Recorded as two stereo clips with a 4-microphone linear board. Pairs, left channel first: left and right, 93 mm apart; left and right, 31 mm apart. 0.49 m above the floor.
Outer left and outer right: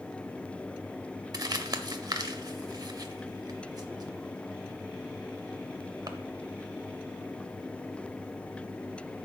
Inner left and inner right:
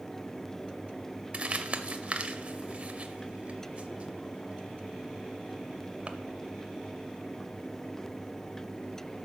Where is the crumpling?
45° right (ahead or behind), 0.7 m.